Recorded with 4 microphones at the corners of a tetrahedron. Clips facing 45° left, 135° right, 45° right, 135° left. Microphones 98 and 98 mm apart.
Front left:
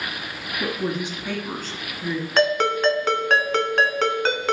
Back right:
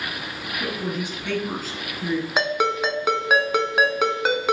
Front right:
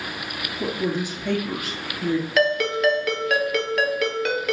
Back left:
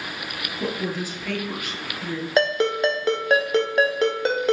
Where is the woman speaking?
30° left, 1.3 m; by 2.3 s 75° right, 1.6 m.